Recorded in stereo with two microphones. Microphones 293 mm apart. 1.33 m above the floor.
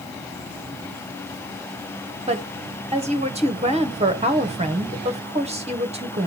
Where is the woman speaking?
20° right (ahead or behind), 1.1 m.